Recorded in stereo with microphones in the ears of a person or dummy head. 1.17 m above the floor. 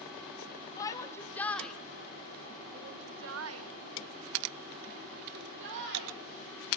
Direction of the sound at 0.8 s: 20° left (ahead or behind).